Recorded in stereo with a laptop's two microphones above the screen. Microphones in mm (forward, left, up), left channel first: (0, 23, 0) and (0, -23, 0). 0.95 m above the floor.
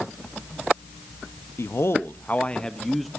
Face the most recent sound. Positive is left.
turn(degrees=0)  # may be behind; listen again after turning